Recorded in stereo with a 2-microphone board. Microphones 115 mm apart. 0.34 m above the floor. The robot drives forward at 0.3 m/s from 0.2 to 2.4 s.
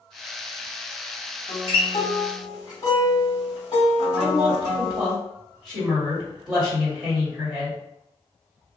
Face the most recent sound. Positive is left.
turn(degrees=-5)  # may be behind; listen again after turning